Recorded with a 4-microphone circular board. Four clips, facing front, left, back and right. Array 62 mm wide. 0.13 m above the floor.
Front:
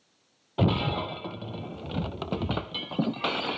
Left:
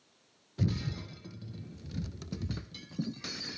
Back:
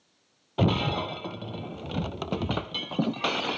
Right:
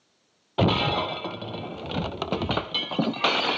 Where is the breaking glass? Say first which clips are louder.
Right 13 dB, back 1 dB; 95° right.